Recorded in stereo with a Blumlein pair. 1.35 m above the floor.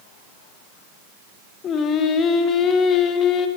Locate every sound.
1.6 s singing: 30° left, 1.2 m